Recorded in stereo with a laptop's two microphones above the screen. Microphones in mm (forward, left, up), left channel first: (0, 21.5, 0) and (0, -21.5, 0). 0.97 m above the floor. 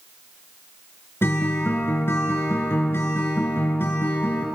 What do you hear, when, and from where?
1.2 s a guitar: 65° left (ahead or behind), 3.5 m